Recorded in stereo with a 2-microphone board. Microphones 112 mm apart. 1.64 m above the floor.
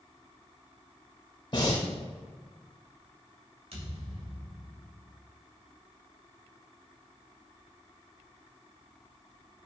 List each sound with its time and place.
1.5 s breathing: 45° left (ahead or behind), 3 m
3.7 s a thud: 65° right (ahead or behind), 3.5 m